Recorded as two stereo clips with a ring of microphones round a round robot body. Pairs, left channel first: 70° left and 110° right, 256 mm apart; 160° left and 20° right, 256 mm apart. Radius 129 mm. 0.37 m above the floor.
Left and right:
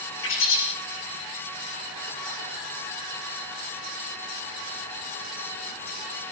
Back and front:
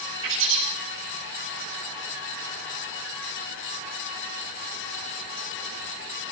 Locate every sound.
0.2 s a bird: 25° left, 10 m